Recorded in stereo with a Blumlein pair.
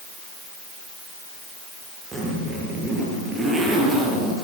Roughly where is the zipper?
Ahead.